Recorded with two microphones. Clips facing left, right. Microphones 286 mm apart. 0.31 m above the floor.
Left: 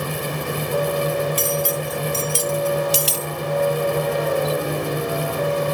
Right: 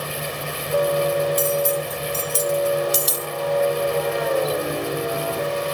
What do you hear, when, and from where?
1.4 s cutlery clinking: 70° left (ahead or behind)